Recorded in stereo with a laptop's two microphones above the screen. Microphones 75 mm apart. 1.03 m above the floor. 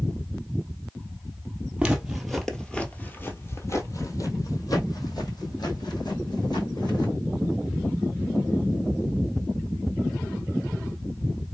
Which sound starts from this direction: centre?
Footsteps, at 1.8 s.